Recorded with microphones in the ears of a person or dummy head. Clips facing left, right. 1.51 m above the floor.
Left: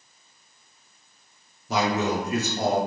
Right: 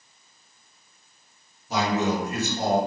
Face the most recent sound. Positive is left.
turn(degrees=60)  # may be behind; listen again after turning